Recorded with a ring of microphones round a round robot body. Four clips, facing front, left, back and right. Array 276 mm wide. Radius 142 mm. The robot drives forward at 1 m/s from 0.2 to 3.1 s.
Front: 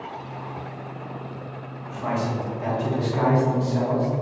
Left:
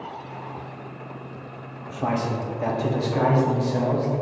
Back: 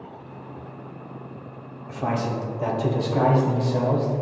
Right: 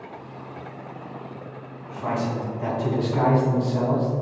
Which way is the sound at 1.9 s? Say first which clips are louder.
Left 1 dB, even; 125° left.